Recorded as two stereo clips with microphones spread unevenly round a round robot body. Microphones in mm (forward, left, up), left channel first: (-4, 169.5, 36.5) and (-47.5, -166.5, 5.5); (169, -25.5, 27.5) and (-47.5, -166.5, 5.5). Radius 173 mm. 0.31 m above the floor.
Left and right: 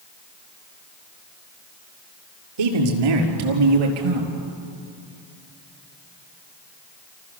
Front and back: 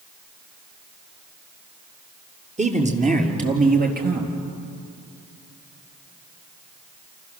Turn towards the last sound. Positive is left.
turn(degrees=-95)